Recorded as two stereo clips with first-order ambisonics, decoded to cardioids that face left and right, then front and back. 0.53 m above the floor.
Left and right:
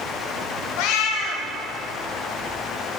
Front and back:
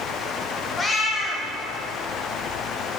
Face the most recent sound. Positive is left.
turn(degrees=75)